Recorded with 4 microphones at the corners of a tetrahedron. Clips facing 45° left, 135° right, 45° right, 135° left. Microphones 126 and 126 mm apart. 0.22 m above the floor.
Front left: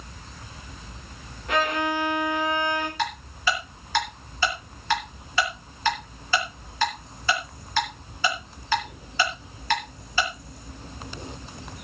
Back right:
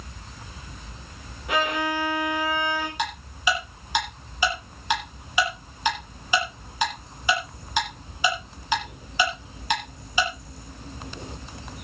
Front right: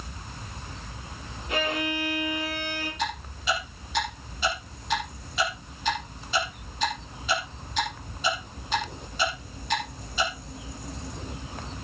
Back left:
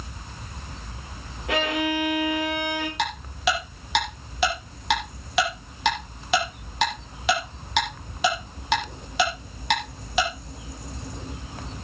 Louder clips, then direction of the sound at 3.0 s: Even, back left 6 dB; 150° left.